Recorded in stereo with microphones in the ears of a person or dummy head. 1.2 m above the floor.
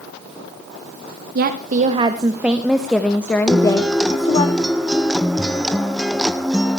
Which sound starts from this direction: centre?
A guitar, at 3.5 s.